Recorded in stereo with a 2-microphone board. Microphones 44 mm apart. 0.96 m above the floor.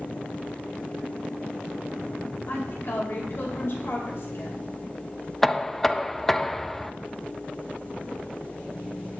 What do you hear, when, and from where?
2.5 s a woman speaking: 55° left (ahead or behind), 5.5 m
5.4 s knocking: 5° left (ahead or behind), 0.5 m